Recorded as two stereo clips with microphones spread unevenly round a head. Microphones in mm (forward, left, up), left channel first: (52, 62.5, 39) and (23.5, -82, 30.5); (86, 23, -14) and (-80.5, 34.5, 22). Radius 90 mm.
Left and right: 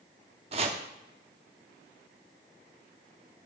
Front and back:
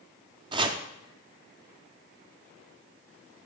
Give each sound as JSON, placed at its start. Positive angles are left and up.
{"t": 0.5, "sound": "chopping", "azimuth_deg": -150, "distance_m": 0.6}